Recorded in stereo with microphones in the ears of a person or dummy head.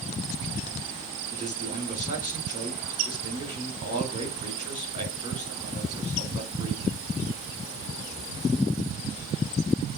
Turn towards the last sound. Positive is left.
turn(degrees=-30)  # may be behind; listen again after turning